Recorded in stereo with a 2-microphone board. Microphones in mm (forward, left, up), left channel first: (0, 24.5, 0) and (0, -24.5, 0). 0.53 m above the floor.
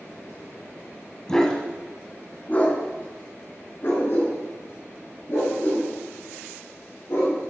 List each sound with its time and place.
1.3 s a dog barking: 15° left (ahead or behind), 1.8 m; by 7.4 s 60° left (ahead or behind), 6 m